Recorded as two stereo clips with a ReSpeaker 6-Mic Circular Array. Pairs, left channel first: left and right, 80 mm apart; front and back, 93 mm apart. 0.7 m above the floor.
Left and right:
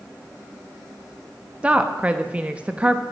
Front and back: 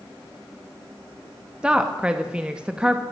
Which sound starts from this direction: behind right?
A woman speaking, at 1.6 s.